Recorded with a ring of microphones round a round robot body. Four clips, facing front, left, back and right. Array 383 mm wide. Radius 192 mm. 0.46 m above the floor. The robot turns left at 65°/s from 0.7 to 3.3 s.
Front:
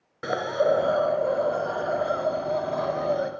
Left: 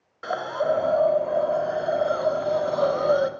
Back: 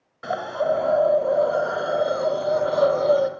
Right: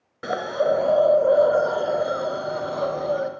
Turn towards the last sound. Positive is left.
turn(degrees=145)